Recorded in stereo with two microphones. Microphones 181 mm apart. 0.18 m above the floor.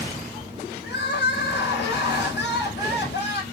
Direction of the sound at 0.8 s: 70° left (ahead or behind).